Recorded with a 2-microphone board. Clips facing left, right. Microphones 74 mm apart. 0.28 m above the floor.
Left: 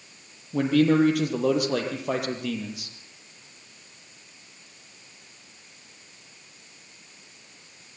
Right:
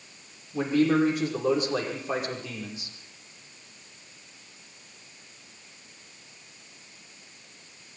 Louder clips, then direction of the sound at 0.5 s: Left 3 dB; 65° left (ahead or behind).